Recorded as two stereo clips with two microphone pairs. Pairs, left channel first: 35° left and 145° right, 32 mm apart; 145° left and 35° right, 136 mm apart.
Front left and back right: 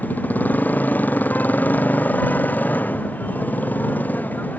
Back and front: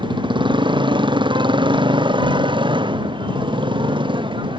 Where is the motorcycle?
20° left.